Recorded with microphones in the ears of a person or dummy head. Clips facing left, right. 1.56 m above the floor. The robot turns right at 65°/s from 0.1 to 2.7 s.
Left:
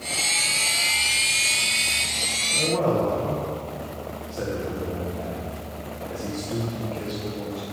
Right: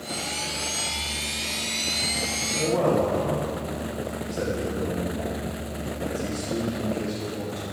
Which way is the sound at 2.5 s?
10° left (ahead or behind).